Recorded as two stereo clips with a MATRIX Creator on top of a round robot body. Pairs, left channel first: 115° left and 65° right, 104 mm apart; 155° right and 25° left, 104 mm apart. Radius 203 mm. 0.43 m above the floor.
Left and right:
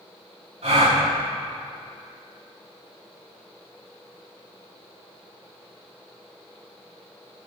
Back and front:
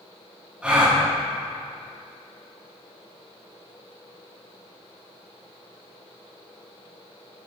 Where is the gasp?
55° right, 6 m.